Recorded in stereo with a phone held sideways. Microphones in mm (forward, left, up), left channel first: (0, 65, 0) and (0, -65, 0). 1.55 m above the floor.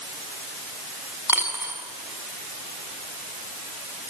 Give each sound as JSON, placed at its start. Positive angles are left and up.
{"t": 1.3, "sound": "a dropped coin", "side_deg": -15, "distance_m": 7.0}